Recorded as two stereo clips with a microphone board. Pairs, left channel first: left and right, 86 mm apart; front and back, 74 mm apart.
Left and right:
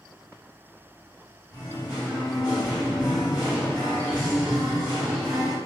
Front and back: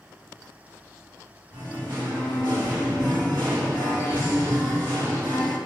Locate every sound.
1.5 s singing: 155° left, 1.8 m